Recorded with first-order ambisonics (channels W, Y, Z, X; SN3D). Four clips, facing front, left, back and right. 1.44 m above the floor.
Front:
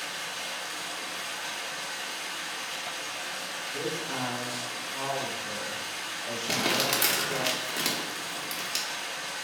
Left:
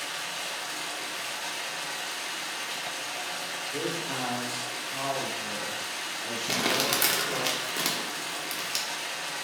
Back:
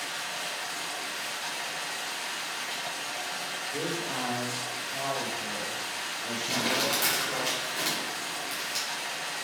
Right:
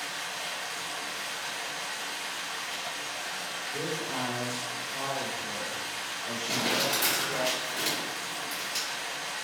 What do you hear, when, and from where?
0.0 s running water: 115° left, 0.7 m
3.7 s a man speaking: 130° left, 1.2 m
6.5 s crumpling: 60° left, 0.6 m